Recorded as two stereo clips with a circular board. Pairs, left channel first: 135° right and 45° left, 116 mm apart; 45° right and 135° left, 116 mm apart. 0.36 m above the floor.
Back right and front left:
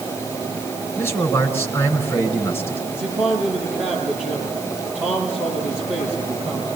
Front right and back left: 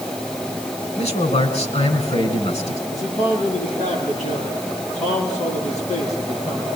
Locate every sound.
1.0 s a man speaking: 65° right, 3.5 m
2.9 s a man speaking: 35° right, 9 m